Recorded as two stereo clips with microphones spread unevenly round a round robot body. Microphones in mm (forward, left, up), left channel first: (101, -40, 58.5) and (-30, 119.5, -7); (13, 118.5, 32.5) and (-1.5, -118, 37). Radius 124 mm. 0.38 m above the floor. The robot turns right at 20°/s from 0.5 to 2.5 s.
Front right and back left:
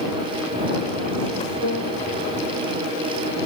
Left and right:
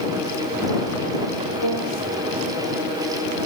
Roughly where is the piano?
Right.